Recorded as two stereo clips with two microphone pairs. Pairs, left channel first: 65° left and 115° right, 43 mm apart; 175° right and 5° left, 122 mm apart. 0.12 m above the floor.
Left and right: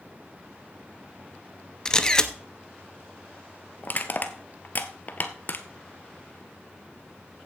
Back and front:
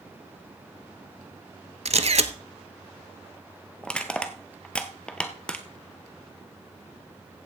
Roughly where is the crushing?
Left.